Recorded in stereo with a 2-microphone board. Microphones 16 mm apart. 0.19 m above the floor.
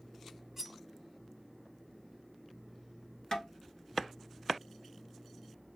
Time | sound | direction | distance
0.6 | cutlery clinking | 20° right (ahead or behind) | 0.9 m
3.3 | tapping | 45° left (ahead or behind) | 1.2 m